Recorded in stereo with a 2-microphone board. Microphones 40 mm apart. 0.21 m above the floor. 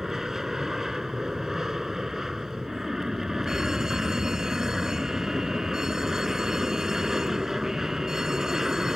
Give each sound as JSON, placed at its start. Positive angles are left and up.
{"t": 0.0, "sound": "an aircraft", "side_deg": -10}
{"t": 3.5, "sound": "a fire alarm", "side_deg": -15}